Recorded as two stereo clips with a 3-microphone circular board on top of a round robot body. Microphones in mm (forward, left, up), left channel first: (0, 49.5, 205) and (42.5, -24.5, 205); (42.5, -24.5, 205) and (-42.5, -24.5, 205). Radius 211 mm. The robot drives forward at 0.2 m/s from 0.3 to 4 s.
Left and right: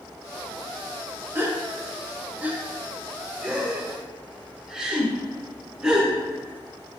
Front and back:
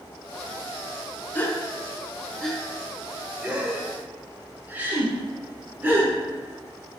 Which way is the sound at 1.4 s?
40° right.